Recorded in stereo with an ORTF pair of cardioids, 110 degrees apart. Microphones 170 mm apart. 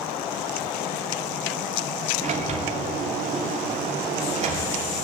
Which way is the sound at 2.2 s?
40° right.